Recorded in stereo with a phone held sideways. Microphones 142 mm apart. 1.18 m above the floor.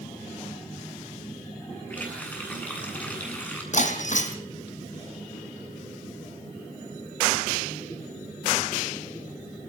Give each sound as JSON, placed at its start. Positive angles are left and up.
{"t": 1.9, "sound": "a running tap", "side_deg": 10, "distance_m": 9.5}
{"t": 3.7, "sound": "breaking glass", "side_deg": 60, "distance_m": 3.0}